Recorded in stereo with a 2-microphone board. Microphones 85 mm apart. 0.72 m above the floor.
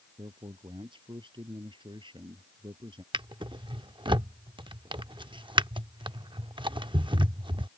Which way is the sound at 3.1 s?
75° right (ahead or behind).